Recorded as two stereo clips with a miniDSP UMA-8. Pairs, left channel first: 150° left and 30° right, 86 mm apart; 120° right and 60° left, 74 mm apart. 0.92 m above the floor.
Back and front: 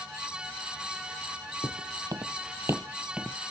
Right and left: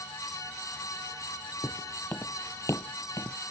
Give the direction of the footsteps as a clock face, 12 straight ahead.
2 o'clock.